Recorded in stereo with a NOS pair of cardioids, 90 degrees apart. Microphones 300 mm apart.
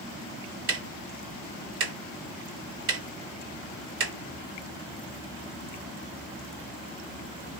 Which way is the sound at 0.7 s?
50° right.